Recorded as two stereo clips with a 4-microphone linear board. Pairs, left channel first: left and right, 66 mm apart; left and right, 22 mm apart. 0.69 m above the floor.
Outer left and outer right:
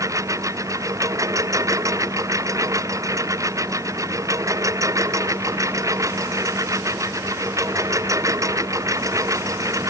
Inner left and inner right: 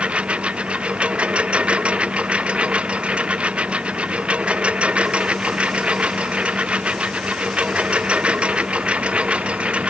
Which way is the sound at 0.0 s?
55° right (ahead or behind).